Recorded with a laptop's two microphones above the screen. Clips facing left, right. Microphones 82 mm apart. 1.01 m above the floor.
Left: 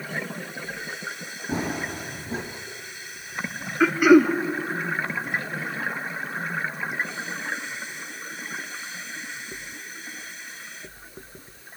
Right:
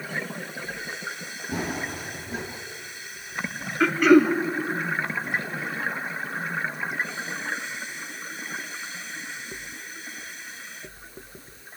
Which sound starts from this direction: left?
Running footsteps, at 1.5 s.